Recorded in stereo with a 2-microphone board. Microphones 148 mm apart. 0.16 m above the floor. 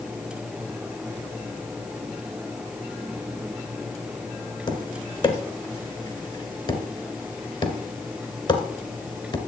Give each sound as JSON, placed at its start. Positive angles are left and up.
{"t": 4.7, "sound": "tapping", "side_deg": 35, "distance_m": 1.3}